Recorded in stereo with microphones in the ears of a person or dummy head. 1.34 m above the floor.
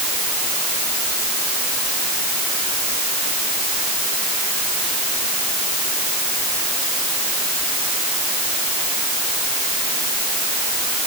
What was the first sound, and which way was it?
Only background noise.